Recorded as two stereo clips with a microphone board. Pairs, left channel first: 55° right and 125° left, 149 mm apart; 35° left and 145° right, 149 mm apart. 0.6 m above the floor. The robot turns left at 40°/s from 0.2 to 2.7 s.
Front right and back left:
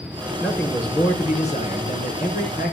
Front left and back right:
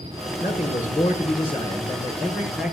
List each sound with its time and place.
0.4 s a man speaking: 25° left, 6 m; by 2.7 s 65° right, 6 m